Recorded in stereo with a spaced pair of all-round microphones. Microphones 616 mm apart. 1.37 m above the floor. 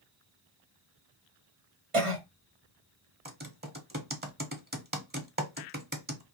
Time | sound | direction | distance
1.9 | a cough | 55° right (ahead or behind) | 1.2 m
3.2 | typing on a keyboard | 15° right (ahead or behind) | 0.7 m